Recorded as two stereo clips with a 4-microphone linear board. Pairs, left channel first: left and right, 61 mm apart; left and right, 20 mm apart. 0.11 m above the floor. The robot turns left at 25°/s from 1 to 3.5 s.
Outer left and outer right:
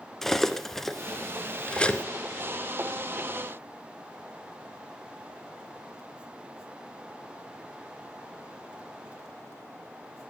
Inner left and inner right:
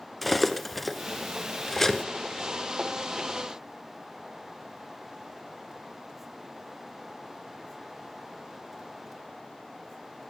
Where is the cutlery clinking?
5° left (ahead or behind), 0.7 m; by 2.0 s 20° left (ahead or behind), 0.7 m.